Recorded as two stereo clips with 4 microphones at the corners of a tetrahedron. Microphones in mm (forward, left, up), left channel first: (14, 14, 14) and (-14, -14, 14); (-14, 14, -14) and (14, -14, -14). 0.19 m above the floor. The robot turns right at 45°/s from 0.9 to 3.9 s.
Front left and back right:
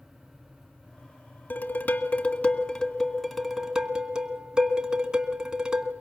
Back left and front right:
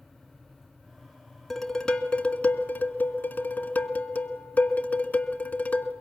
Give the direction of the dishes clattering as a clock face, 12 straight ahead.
10 o'clock.